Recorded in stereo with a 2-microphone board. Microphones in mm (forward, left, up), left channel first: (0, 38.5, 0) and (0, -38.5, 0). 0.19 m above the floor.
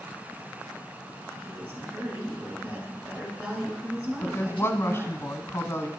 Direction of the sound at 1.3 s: 25° right (ahead or behind).